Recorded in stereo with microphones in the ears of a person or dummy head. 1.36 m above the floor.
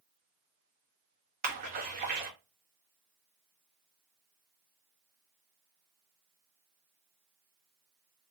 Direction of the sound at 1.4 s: 45° right (ahead or behind).